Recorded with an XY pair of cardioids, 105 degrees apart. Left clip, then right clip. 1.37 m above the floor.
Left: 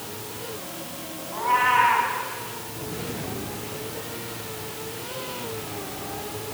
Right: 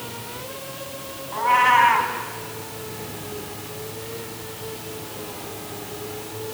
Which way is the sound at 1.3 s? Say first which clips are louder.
Right 4 dB; 40° right.